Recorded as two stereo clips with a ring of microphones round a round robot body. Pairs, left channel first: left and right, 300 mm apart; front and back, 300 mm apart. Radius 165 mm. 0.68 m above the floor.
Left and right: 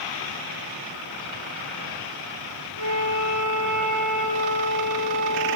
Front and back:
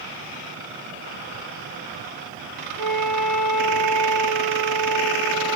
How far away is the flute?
About 9 m.